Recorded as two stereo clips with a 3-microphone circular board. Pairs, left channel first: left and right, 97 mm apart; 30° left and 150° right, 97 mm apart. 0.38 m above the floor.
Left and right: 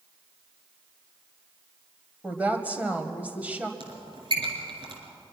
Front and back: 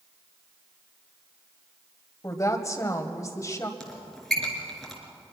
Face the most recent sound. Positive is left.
turn(degrees=-55)